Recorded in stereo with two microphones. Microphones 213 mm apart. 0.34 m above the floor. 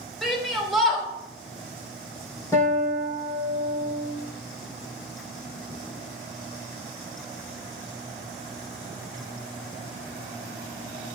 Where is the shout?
Centre (ahead or behind), 1.5 m.